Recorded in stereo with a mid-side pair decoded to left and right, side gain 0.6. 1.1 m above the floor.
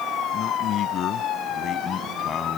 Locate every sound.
0.3 s a man speaking: 55° left; by 2.6 s 30° left